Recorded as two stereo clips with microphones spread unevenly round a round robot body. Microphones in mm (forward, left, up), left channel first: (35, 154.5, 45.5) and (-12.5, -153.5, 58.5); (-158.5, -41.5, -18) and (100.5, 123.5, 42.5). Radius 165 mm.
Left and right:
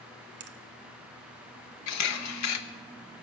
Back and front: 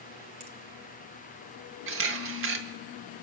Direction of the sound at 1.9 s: 85° left.